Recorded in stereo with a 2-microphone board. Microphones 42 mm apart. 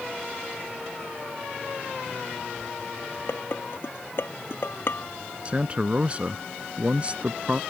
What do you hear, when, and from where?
3.3 s dishes clattering: 65° left (ahead or behind)
5.5 s a man speaking: 30° right (ahead or behind)